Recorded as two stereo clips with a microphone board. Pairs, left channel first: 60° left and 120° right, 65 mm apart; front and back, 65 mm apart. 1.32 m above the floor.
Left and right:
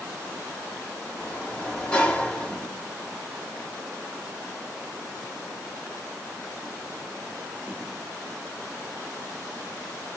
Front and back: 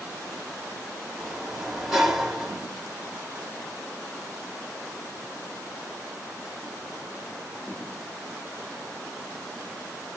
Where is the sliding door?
110° left, 1.1 m.